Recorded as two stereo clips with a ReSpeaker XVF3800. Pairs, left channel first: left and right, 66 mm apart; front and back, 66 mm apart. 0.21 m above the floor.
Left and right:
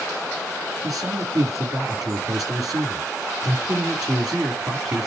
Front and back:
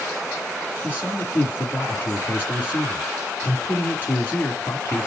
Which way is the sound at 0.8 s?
60° right.